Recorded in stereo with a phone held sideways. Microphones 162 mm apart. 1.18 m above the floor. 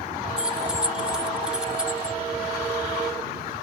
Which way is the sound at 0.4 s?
5° right (ahead or behind).